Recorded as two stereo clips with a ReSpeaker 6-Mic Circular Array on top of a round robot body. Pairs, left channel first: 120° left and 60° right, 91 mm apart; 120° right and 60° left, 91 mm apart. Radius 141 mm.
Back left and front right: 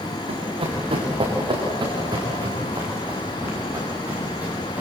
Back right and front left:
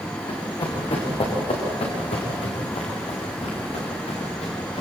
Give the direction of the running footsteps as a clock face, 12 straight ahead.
3 o'clock.